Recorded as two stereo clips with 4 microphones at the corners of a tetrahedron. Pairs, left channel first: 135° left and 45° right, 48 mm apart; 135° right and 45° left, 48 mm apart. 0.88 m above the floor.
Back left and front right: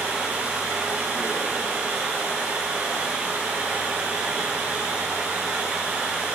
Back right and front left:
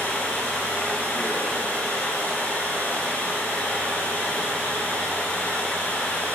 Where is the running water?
85° right, 5 m.